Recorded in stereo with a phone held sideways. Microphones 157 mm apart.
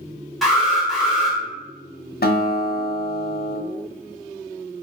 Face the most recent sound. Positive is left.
turn(degrees=80)